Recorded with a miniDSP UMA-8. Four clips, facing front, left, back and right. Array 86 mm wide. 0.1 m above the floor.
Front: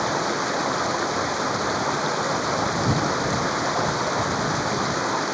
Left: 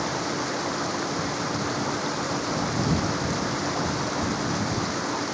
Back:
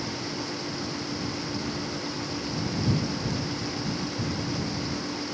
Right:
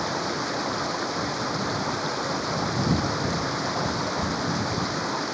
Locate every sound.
0.0 s running water: 5° right